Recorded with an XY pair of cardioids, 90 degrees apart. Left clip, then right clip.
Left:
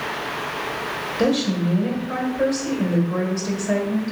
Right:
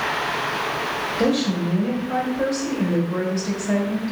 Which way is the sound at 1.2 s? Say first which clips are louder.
Left 2 dB; 10° left.